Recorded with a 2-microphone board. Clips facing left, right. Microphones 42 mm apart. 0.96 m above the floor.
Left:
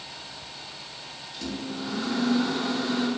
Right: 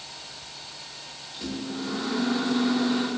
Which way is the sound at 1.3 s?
15° right (ahead or behind).